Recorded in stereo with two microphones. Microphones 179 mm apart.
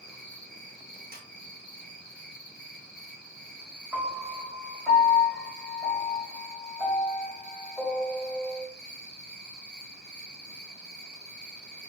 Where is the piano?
5° right (ahead or behind), 0.9 m.